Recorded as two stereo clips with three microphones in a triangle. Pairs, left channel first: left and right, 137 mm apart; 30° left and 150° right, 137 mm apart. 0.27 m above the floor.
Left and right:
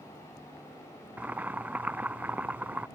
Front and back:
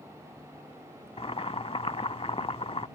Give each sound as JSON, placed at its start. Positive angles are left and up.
{"t": 1.2, "sound": "boiling", "azimuth_deg": -15}